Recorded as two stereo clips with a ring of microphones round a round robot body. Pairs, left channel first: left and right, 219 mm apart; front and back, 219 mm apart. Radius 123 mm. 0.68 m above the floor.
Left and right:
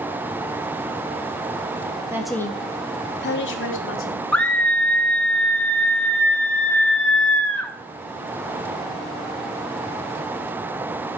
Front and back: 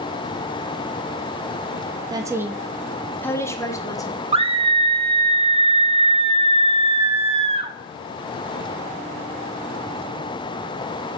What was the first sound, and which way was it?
A woman speaking, 145° right.